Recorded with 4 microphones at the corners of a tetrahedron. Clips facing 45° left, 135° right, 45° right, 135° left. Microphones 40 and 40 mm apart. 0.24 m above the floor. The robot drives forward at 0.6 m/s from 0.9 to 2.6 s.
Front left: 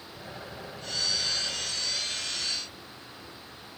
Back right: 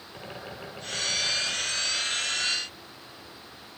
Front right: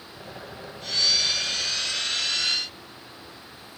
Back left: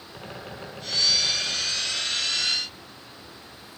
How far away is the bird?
About 6 m.